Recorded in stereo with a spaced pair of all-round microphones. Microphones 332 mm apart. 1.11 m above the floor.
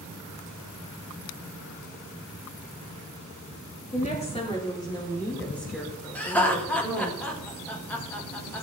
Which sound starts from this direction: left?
A woman speaking, at 3.8 s.